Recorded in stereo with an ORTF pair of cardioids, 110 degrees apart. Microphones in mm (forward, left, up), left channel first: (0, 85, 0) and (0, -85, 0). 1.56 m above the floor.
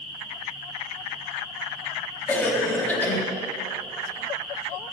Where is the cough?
10° left, 3.5 m.